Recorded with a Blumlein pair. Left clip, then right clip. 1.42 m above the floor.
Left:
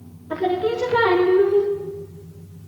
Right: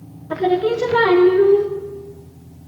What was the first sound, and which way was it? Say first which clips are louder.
Singing: right 4 dB; 5° right.